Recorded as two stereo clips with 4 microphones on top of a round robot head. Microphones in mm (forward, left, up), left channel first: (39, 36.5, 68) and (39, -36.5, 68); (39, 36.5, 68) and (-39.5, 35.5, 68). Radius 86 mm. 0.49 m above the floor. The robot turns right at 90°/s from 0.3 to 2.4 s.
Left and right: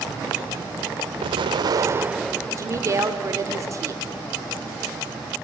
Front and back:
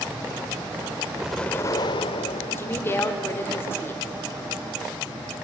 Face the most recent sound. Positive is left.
turn(degrees=-55)